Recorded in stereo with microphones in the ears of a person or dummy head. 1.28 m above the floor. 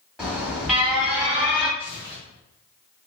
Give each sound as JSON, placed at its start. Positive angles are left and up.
{"t": 0.2, "sound": "an alarm", "side_deg": 0, "distance_m": 1.4}
{"t": 1.8, "sound": "tearing paper", "side_deg": -25, "distance_m": 1.5}